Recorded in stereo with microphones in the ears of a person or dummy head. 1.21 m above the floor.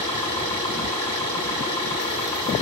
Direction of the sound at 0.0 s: 25° left (ahead or behind).